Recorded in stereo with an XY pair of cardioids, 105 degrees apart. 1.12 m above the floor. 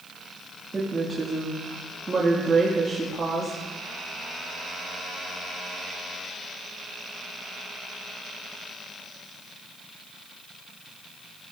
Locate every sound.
0.7 s a woman speaking: 30° right, 2 m